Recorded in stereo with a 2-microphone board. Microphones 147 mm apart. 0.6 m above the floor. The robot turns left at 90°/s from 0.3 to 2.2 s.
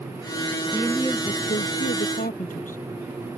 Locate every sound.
0.7 s a woman speaking: 165° right; by 2.8 s 65° left